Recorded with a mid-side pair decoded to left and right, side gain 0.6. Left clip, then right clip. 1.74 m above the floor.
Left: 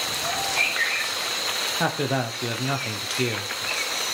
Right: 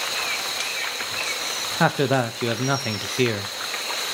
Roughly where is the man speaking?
Ahead right.